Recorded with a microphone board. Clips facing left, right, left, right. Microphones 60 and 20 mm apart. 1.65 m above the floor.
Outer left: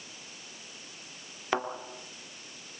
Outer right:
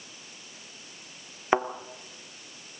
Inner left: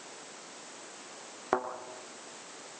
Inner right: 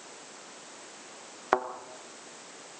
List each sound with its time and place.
1.5 s a thud: 25° right (ahead or behind), 1.8 m